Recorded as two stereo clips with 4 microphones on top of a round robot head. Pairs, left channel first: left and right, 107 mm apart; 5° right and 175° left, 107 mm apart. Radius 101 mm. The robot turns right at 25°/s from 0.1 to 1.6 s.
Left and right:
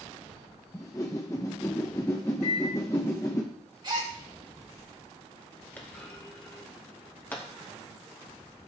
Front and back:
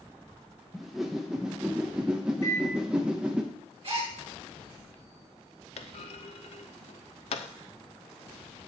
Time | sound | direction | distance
0.7 | a whoosh | 85° left | 0.8 m
2.4 | a microwave | 55° left | 1.6 m
3.8 | a gasp | 135° right | 3 m
5.8 | a clunk | 10° left | 0.6 m